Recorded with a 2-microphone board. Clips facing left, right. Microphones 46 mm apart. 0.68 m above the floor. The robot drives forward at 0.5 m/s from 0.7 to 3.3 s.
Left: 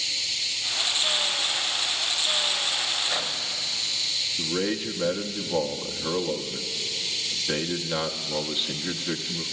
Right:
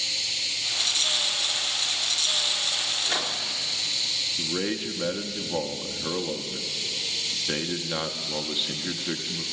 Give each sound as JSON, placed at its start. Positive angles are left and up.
{"t": 3.1, "sound": "a microwave", "side_deg": -60, "distance_m": 1.4}
{"t": 4.4, "sound": "a man speaking", "side_deg": 0, "distance_m": 0.5}